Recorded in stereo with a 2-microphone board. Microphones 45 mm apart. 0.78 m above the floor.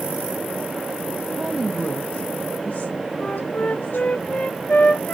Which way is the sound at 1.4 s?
5° right (ahead or behind).